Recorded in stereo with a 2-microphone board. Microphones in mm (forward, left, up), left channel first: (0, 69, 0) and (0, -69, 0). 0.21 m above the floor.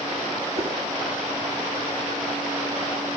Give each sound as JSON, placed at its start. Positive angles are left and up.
{"t": 0.6, "sound": "a whoosh", "side_deg": -50, "distance_m": 1.4}